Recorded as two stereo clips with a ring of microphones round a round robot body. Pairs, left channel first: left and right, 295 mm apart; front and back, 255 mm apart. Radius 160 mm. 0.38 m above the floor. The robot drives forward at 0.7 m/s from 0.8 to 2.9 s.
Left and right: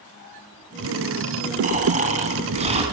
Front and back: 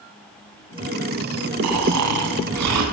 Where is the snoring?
155° right, 3 m; by 2.8 s 160° right, 4 m.